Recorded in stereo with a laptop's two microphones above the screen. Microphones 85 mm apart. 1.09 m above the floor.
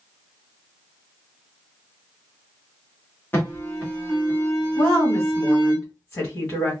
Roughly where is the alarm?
Left.